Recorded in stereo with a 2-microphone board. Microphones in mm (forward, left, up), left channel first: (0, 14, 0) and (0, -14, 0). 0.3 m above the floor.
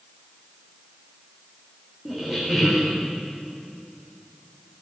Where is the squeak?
20° right (ahead or behind), 2.5 m.